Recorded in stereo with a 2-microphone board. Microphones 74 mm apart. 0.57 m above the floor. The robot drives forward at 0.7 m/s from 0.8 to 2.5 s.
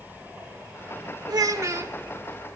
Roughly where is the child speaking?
Right.